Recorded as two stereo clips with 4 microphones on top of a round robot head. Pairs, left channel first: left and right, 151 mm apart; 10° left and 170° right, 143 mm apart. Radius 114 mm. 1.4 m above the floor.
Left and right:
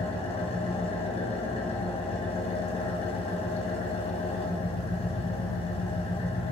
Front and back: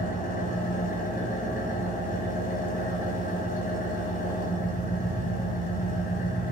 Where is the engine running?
40° left, 2 m.